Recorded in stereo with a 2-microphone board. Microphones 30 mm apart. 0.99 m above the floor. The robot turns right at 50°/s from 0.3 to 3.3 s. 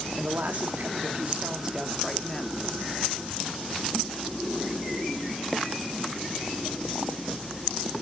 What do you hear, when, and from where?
0.1 s a woman speaking: 90° right, 2 m; by 2.6 s 25° left, 2 m